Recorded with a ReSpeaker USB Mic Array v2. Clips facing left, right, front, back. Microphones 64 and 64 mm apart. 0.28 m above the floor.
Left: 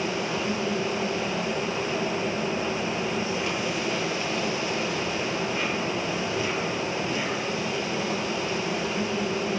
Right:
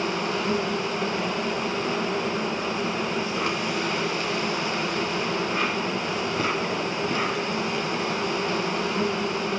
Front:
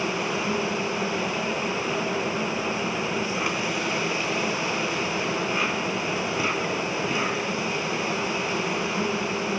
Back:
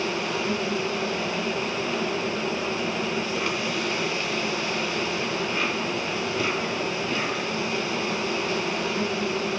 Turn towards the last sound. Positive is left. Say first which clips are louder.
# right 2 dB, even
turn(degrees=-75)